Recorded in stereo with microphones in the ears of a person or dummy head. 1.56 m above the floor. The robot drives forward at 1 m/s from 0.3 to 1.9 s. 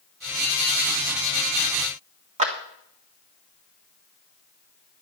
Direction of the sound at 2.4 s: 35° right (ahead or behind).